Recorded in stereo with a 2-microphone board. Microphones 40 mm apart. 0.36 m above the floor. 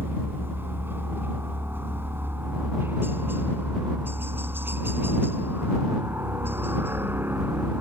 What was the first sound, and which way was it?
A helicopter, 65° right (ahead or behind).